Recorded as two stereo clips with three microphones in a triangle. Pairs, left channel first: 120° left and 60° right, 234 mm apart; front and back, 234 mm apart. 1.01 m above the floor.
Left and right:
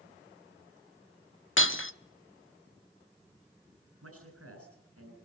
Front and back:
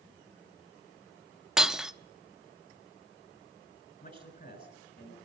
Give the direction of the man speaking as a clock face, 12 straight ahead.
2 o'clock.